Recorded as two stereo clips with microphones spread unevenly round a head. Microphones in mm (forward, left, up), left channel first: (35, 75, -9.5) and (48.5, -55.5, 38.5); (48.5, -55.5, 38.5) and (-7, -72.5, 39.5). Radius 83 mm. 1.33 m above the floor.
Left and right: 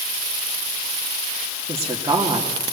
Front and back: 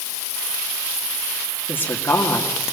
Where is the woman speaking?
20° right, 2.5 m.